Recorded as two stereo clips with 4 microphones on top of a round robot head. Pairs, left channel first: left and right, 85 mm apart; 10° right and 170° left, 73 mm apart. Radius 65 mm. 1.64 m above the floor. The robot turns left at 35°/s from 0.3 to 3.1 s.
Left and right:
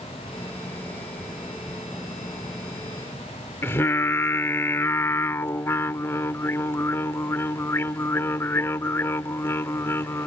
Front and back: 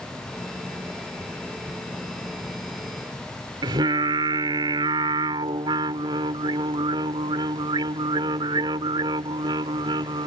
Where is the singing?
150° left.